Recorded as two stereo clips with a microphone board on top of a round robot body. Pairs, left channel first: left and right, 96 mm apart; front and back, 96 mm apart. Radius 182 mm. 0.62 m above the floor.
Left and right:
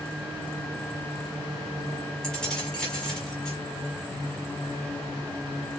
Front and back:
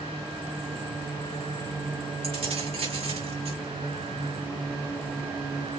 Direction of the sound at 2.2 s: 170° left.